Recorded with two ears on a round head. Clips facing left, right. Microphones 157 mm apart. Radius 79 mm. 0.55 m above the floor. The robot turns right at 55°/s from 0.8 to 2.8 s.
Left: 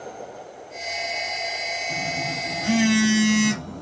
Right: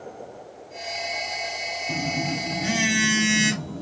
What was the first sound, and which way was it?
A phone buzzing, 65° right.